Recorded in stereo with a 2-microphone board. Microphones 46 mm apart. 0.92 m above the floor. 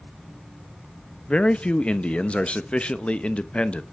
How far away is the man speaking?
About 0.6 m.